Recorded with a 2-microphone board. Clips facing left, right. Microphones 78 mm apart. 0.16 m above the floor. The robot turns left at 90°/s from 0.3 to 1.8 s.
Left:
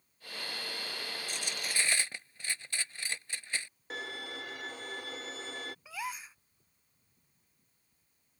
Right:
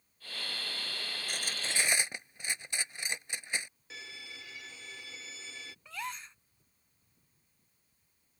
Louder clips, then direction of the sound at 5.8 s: Right 2 dB; 5° left (ahead or behind).